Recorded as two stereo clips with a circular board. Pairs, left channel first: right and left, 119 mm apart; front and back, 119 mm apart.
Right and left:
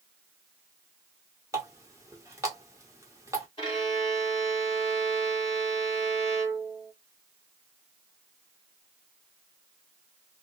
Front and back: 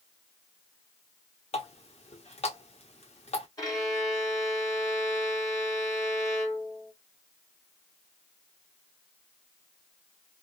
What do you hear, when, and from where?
1.5 s a running tap: 25° left, 1.1 m
3.6 s a violin: 55° right, 2 m